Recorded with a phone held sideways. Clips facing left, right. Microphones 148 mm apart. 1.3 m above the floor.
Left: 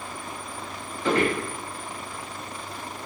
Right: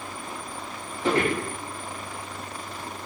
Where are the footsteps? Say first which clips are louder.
Even; 30° right (ahead or behind), 1.5 m.